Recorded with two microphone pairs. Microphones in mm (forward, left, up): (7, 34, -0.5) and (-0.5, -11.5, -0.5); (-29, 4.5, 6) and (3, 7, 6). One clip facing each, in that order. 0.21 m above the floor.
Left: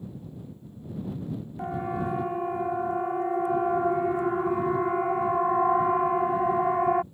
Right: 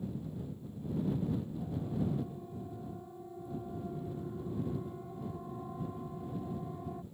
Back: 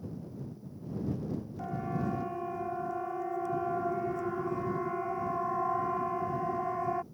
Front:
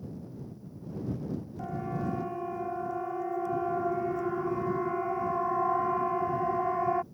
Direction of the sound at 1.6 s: 95° left.